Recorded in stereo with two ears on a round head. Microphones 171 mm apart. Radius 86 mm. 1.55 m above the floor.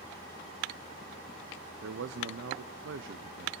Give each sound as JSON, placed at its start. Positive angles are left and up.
{"t": 1.8, "sound": "a man speaking", "side_deg": -65, "distance_m": 0.6}